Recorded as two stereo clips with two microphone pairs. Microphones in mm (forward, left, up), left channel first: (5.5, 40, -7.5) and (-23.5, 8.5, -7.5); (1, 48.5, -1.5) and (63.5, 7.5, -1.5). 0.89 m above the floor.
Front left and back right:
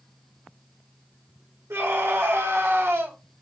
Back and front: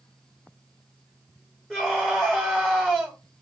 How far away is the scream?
About 1.3 m.